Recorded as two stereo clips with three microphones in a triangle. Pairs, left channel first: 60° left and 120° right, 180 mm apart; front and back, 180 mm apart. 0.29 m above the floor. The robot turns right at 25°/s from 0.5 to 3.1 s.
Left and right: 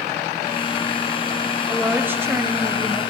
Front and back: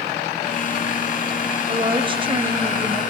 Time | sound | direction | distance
1.7 | a woman speaking | 165° left | 1.5 m